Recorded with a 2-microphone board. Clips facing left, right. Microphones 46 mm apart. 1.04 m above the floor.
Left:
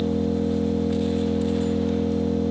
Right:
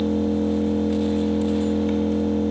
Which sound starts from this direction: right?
An engine running, at 0.0 s.